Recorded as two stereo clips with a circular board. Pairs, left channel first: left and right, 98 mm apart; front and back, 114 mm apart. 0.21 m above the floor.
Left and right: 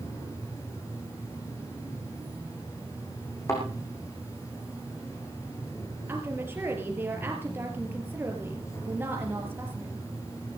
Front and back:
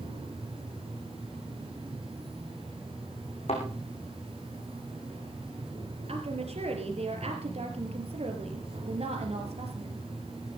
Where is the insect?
145° left, 6.5 m.